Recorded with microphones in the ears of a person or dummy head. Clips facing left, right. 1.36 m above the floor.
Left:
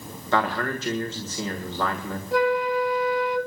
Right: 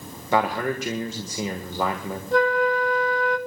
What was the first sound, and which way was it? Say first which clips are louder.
A man speaking: right 2 dB; 15° right (ahead or behind).